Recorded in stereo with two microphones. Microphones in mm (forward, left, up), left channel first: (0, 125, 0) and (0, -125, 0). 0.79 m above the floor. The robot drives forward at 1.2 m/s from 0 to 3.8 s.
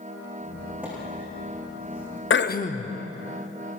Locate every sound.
0.4 s a squeak: 5° right (ahead or behind), 8.5 m
2.3 s throat clearing: 55° left (ahead or behind), 0.6 m; by 2.9 s 25° left (ahead or behind), 1.2 m